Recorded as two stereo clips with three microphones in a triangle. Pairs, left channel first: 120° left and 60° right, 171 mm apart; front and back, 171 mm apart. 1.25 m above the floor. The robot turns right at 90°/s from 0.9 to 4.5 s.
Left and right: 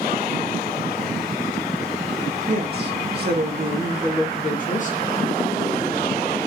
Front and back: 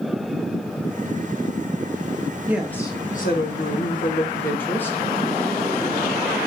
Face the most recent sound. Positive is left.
turn(degrees=80)